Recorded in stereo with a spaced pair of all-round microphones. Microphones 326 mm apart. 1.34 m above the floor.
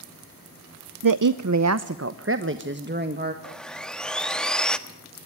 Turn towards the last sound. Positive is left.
turn(degrees=0)  # may be behind; listen again after turning